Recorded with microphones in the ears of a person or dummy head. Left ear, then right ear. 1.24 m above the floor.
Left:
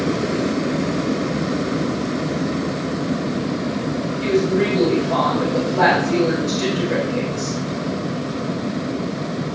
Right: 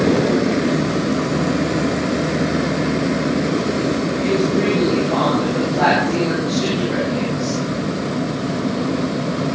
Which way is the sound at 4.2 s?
45° left (ahead or behind).